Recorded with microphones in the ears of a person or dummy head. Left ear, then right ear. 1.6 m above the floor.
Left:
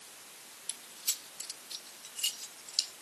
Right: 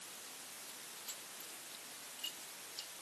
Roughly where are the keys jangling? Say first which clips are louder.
Left 15 dB; left.